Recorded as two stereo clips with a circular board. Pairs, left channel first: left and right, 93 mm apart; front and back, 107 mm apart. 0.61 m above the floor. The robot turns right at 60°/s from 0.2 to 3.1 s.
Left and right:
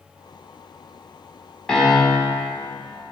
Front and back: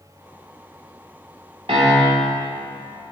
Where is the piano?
170° left, 1.6 m; by 2.4 s 145° right, 1.6 m.